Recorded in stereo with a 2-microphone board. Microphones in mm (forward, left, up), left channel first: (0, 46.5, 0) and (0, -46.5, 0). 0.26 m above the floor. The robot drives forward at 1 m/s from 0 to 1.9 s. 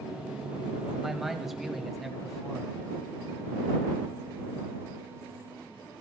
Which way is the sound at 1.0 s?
5° right (ahead or behind).